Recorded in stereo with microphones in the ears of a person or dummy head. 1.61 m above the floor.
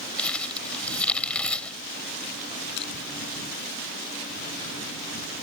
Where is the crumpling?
10° left (ahead or behind).